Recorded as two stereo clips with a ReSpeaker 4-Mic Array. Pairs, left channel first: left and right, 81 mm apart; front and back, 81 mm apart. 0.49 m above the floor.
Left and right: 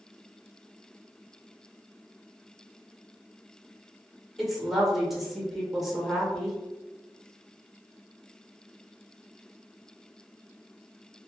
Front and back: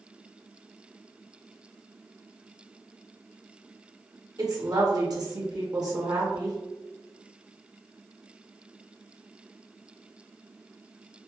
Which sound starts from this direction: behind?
A woman speaking, at 4.4 s.